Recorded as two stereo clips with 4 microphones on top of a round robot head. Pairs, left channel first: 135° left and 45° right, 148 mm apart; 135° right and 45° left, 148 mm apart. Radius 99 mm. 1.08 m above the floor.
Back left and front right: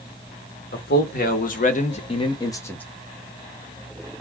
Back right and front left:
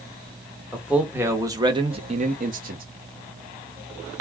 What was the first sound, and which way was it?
A man speaking, 130° left.